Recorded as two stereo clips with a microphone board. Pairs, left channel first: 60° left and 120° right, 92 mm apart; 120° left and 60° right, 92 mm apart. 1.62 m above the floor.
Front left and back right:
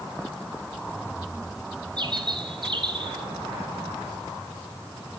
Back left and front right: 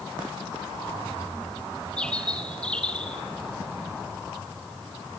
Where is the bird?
160° right, 2 m.